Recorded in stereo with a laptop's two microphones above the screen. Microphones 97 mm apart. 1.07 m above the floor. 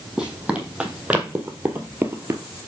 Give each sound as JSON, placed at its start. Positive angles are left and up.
{"t": 0.2, "sound": "running footsteps", "side_deg": -5, "distance_m": 2.0}